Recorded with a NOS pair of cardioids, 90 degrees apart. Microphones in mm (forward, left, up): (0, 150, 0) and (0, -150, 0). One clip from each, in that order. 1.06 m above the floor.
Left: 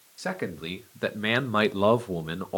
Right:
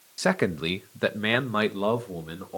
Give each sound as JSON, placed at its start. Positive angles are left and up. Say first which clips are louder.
{"t": 0.2, "sound": "a man speaking", "louder": "right 7 dB", "azimuth_deg": -45, "distance_m": 1.1}